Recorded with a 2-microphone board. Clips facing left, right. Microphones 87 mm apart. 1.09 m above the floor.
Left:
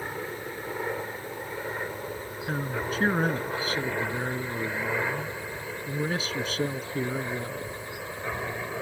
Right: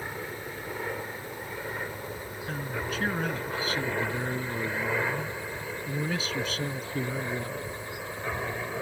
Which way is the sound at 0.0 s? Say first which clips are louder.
Left 2 dB; 15° left (ahead or behind).